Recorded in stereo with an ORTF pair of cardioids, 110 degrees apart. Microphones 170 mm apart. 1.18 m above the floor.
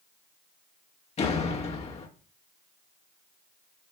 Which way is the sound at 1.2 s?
40° left.